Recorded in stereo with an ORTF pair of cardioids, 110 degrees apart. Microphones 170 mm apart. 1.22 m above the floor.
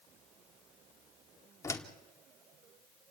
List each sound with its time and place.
1.6 s a door slam: 15° left, 2.5 m